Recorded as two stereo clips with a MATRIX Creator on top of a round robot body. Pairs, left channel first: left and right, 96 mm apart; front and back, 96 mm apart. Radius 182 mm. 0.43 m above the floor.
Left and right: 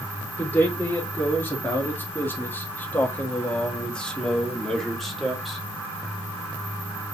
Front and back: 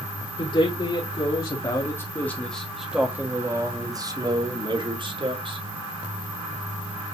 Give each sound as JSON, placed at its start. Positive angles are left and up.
{"t": 0.4, "sound": "a man speaking", "azimuth_deg": 20, "distance_m": 2.5}